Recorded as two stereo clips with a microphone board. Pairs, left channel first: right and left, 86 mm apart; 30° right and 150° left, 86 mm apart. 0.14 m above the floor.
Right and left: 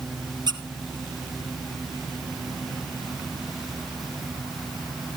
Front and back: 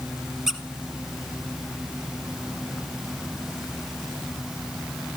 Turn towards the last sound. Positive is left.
turn(degrees=65)